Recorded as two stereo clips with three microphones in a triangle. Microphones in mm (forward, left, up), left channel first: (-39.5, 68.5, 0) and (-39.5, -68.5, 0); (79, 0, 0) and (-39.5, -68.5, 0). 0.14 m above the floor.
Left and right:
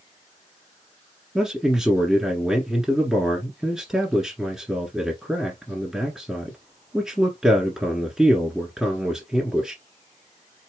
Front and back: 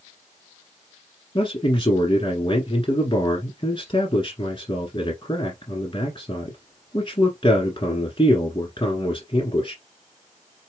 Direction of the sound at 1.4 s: 5° right.